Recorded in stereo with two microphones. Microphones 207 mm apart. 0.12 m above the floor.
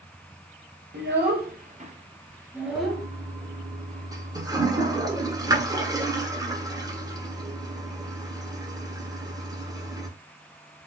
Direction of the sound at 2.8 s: 15° right (ahead or behind).